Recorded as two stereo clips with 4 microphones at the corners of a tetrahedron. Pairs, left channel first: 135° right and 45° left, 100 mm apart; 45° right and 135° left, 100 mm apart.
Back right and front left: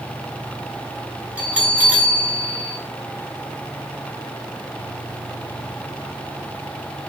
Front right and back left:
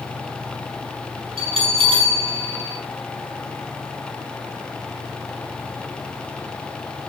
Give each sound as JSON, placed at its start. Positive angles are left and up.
{"t": 1.4, "sound": "a bell", "azimuth_deg": 120, "distance_m": 0.7}